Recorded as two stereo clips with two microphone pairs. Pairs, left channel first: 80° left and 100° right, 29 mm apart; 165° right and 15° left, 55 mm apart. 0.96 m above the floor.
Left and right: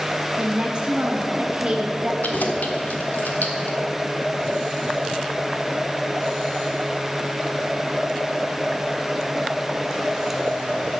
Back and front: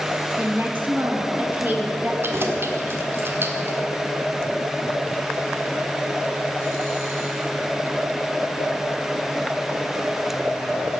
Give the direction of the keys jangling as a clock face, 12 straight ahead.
10 o'clock.